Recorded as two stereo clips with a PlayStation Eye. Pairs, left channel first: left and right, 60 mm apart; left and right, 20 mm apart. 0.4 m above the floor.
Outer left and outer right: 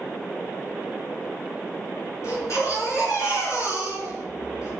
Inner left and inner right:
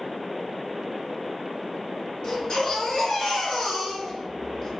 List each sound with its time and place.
2.2 s a baby crying: 55° left (ahead or behind), 5 m